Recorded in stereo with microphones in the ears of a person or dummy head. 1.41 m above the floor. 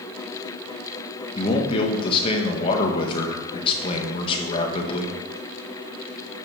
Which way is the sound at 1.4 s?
30° left (ahead or behind).